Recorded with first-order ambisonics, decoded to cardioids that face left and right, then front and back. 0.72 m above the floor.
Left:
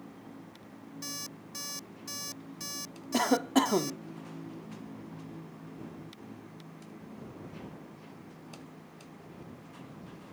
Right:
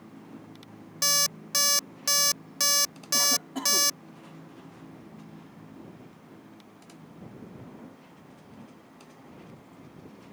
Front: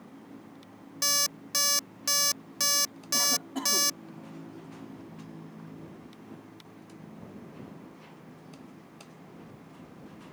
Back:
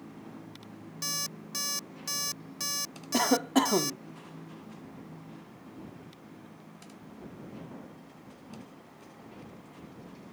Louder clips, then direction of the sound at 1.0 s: Right 17 dB, front 7 dB; 60° right.